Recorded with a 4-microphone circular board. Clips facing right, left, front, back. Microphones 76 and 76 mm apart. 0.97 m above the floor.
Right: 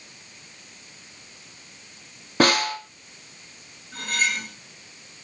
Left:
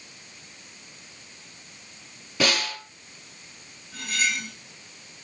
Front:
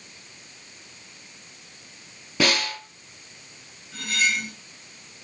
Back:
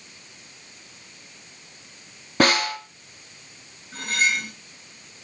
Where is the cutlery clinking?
130° right, 2.5 m.